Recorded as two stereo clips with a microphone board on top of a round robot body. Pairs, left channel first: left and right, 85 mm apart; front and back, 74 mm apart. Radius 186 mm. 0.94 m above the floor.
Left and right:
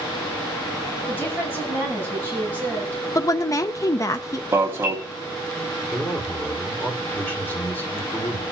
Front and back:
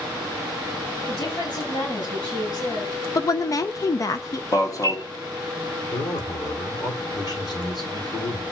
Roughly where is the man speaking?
Ahead.